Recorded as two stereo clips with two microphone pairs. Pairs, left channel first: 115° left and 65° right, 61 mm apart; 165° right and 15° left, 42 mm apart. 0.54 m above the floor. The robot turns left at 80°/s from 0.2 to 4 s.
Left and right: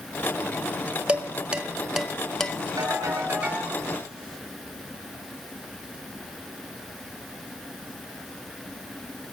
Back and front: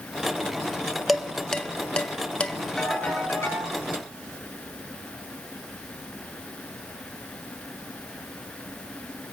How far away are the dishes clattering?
About 0.6 m.